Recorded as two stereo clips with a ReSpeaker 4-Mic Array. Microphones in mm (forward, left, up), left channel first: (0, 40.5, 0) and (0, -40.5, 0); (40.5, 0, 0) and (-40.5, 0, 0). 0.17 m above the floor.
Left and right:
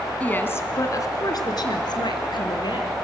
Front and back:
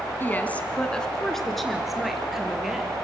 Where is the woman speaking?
35° left, 1.3 m; by 2.9 s 95° left, 3.5 m.